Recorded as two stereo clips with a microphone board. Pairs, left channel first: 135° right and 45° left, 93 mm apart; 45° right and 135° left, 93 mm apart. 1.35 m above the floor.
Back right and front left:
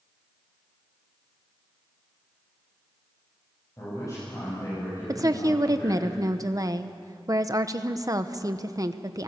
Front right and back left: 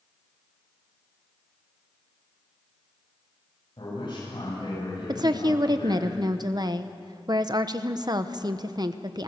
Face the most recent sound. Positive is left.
turn(degrees=95)